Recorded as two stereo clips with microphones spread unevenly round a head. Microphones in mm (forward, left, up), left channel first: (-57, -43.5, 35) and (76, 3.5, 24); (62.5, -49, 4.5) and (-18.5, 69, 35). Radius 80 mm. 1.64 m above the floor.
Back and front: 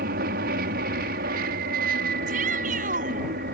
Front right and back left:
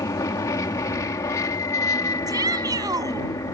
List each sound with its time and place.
0.0 s an aircraft: 15° left
2.3 s a shout: 60° left